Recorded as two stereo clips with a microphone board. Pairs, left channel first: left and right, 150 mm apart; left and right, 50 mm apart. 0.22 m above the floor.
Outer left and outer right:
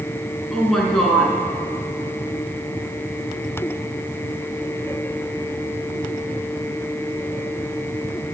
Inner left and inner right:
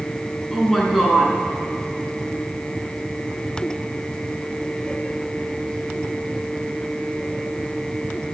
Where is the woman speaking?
Centre (ahead or behind), 2.5 m.